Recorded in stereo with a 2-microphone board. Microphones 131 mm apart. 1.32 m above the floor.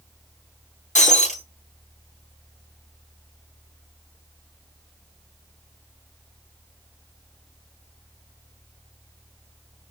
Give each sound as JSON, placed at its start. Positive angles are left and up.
{"t": 0.9, "sound": "breaking glass", "side_deg": 70, "distance_m": 3.0}